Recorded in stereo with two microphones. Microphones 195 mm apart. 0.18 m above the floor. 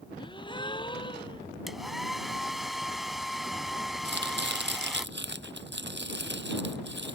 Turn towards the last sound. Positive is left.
turn(degrees=-65)  # may be behind; listen again after turning